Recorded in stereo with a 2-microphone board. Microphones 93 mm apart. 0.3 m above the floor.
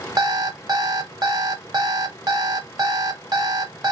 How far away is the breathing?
No breathing in this recording.